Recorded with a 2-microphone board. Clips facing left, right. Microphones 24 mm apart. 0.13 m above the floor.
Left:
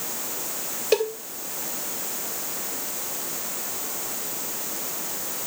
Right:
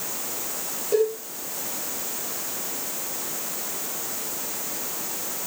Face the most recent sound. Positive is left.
turn(degrees=55)  # may be behind; listen again after turning